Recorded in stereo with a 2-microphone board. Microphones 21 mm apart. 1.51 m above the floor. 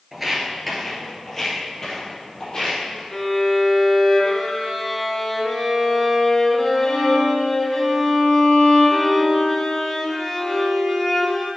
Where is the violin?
25° left (ahead or behind), 1.2 m.